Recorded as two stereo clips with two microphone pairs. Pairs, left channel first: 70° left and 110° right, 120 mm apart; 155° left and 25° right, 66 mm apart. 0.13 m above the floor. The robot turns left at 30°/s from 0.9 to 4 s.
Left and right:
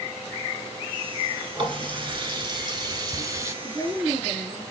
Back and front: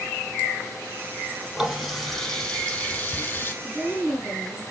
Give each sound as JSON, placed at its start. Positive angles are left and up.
{"t": 1.6, "sound": "a running tap", "azimuth_deg": -100, "distance_m": 1.1}
{"t": 3.6, "sound": "a woman speaking", "azimuth_deg": -85, "distance_m": 1.8}